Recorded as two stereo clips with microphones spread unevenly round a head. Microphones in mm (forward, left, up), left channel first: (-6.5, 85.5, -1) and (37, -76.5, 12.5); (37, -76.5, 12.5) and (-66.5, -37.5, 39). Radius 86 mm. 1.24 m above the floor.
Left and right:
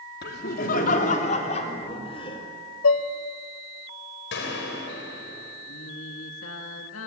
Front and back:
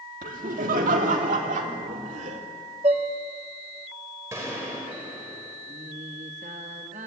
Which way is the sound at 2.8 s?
105° left.